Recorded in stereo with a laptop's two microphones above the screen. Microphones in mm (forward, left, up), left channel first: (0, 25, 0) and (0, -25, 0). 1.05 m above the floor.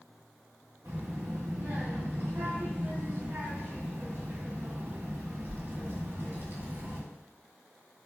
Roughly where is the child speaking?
Right.